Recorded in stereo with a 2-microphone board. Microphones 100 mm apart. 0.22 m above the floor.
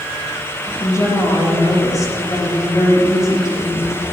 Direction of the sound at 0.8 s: 35° left (ahead or behind).